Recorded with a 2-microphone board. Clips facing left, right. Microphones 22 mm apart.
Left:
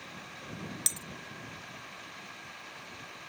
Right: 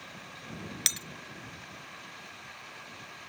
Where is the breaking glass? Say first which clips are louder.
Right 5 dB; 50° right (ahead or behind).